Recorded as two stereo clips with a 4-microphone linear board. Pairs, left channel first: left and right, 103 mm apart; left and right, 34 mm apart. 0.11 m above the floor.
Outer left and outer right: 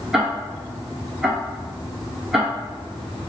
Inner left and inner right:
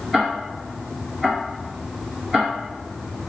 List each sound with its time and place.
0.1 s ticking: 5° right (ahead or behind), 1.3 m